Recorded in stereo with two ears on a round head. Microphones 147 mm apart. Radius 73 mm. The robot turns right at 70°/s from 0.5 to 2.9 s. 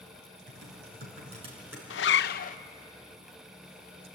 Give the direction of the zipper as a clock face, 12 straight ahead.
9 o'clock.